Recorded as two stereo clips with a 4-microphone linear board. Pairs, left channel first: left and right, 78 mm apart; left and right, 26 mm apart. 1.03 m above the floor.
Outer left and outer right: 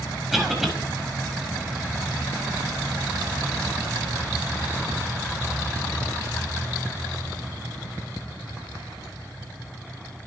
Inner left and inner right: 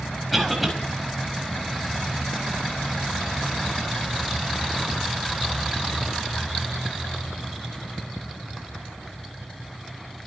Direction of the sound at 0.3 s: 5° right (ahead or behind).